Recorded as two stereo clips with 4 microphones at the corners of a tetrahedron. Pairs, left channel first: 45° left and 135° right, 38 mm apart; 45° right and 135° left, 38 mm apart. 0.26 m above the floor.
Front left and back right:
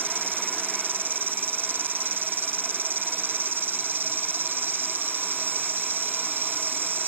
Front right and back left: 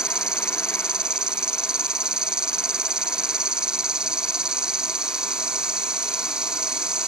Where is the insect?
155° right.